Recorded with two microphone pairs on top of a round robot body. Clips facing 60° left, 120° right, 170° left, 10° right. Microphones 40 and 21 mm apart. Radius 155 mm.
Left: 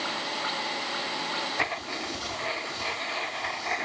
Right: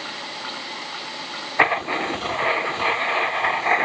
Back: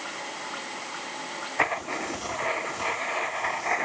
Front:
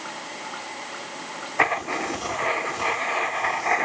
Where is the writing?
75° right.